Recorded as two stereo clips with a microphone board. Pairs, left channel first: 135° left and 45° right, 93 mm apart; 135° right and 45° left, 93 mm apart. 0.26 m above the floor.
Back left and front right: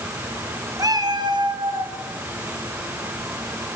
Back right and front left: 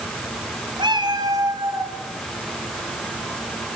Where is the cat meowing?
10° left, 2.0 m; by 1.9 s 15° right, 3 m.